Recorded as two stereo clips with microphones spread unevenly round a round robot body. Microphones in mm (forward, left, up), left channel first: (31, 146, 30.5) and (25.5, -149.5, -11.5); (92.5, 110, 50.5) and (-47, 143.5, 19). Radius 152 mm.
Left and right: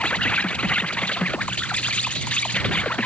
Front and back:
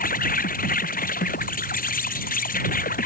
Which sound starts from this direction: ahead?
An insect, at 0.0 s.